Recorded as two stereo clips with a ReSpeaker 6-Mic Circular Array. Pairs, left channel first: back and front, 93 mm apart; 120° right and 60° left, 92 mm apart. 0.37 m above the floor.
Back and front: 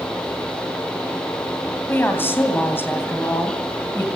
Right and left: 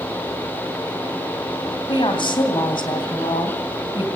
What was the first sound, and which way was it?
A woman speaking, 115° right.